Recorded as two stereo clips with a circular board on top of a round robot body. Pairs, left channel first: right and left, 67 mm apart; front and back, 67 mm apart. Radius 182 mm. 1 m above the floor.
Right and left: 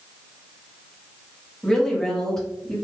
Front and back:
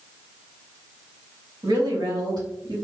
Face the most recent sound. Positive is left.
turn(degrees=-175)